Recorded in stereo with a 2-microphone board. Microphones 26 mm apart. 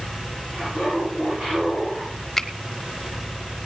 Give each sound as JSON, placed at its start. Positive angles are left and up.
{"t": 0.5, "sound": "laughter", "side_deg": -55, "distance_m": 9.0}
{"t": 2.4, "sound": "a finger snap", "side_deg": 10, "distance_m": 1.0}